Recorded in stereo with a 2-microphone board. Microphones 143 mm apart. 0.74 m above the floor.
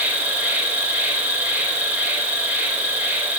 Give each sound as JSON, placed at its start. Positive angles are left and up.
{"t": 0.0, "sound": "an insect", "side_deg": -10, "distance_m": 4.0}